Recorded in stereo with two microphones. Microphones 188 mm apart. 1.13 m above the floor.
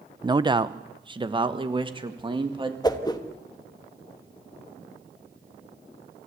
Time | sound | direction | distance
0.2 | a man speaking | 20° right (ahead or behind) | 0.6 m
2.8 | a whoosh | 20° left (ahead or behind) | 1.3 m